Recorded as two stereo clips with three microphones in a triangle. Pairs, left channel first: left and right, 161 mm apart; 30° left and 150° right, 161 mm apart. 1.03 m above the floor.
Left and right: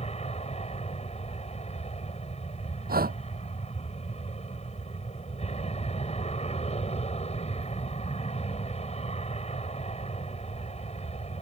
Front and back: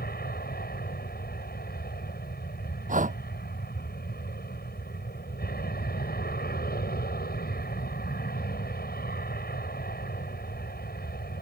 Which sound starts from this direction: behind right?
Breathing, at 2.9 s.